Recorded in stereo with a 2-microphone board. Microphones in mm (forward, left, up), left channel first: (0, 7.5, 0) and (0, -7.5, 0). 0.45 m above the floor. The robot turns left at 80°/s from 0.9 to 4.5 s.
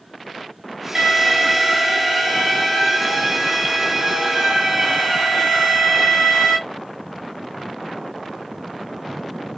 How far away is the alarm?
About 2 m.